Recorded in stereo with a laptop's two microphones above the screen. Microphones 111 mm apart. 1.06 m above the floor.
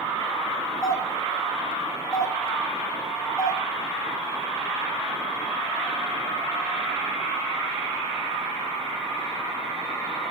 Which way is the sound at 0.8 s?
30° left (ahead or behind).